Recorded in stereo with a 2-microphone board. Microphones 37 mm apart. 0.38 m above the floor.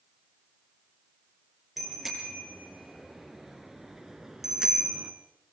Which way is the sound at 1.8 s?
Centre (ahead or behind).